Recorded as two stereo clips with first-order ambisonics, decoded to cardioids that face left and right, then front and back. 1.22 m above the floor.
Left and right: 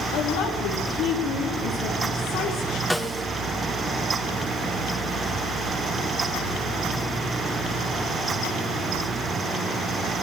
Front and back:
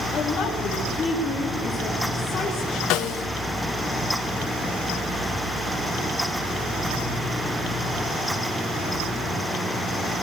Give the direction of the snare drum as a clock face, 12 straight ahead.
12 o'clock.